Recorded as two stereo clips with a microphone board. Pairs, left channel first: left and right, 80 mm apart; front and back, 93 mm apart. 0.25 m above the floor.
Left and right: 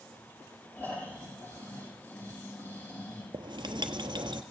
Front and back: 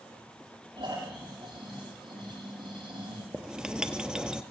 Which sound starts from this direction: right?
Writing, at 3.3 s.